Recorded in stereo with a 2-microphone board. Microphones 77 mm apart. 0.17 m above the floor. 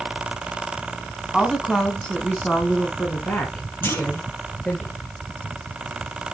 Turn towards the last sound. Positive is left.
turn(degrees=30)  # may be behind; listen again after turning